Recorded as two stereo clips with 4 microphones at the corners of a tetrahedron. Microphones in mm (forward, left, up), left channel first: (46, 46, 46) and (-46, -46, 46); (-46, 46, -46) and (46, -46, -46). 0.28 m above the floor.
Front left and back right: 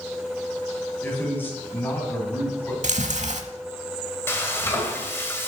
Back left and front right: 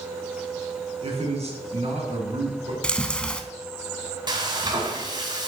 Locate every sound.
1.0 s a man speaking: 25° right, 2.5 m
2.8 s chewing: 145° right, 0.7 m
4.3 s frying: 15° right, 1.5 m